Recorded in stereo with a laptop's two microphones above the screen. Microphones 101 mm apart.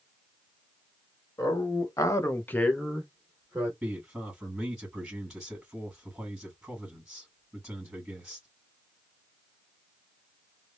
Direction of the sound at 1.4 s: 35° left (ahead or behind).